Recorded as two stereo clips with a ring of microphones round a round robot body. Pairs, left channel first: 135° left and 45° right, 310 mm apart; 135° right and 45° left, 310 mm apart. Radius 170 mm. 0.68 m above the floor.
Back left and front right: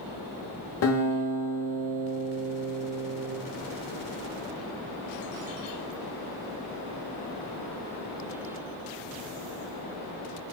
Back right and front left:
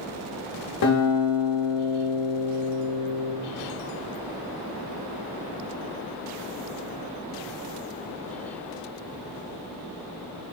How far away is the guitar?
About 0.9 m.